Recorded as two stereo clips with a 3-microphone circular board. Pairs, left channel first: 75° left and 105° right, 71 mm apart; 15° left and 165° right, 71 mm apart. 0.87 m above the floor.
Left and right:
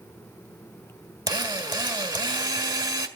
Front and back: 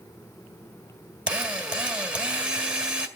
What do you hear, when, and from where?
1.3 s a drill: 90° right, 1.8 m